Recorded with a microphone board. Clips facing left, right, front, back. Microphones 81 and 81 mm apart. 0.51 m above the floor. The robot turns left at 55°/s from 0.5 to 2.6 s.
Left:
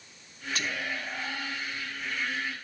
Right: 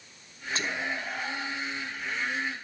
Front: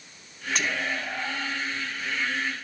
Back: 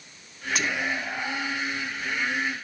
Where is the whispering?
100° right, 0.7 m; by 1.6 s 155° right, 0.7 m.